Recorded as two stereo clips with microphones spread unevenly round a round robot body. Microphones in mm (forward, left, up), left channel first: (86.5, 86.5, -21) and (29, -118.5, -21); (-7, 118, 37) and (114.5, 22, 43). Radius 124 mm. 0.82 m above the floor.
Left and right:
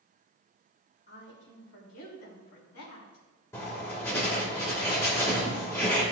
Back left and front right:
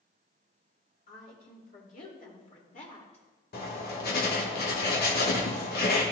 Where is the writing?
155° left, 1.4 m.